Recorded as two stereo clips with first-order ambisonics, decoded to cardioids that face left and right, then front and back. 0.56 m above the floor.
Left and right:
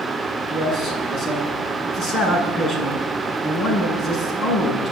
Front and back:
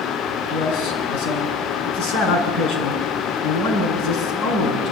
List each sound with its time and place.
0.5 s a man speaking: 20° left, 7 m